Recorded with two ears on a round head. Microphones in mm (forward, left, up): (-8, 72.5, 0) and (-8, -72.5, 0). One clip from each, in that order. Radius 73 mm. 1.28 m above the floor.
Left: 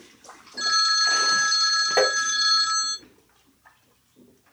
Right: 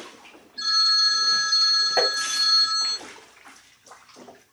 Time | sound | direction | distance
0.6 | a phone ringing | 80° left | 0.9 m
2.0 | tapping | 10° left (ahead or behind) | 0.9 m